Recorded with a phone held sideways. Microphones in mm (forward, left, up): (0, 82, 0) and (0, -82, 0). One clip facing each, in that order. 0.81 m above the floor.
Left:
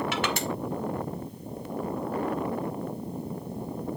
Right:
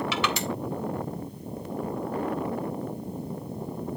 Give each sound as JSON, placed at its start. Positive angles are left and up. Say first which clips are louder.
{"t": 0.1, "sound": "crushing", "louder": "even", "side_deg": 50, "distance_m": 3.0}